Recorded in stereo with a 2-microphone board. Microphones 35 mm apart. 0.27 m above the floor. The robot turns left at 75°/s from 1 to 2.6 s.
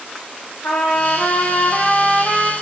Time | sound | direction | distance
0.6 | a trumpet | 75° left | 2.5 m